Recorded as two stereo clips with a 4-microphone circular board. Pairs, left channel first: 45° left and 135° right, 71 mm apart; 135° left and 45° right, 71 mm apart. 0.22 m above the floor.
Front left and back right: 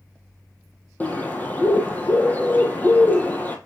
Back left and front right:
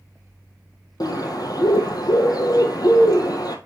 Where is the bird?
110° left, 1.5 m.